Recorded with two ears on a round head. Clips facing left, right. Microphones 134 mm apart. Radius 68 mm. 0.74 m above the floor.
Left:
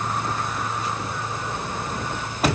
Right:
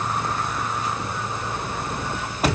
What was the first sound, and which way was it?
Only background noise.